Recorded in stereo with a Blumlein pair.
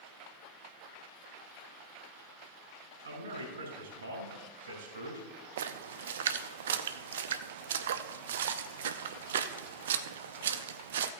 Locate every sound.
3.0 s a man speaking: 65° right, 4 m
5.6 s a splash: 60° right, 0.6 m